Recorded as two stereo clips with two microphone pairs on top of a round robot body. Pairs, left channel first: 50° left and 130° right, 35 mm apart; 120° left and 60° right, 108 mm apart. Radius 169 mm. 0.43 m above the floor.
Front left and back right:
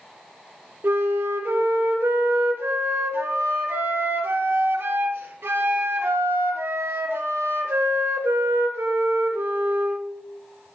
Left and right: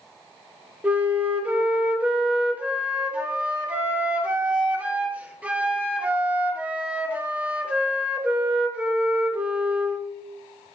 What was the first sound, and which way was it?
A flute, 135° right.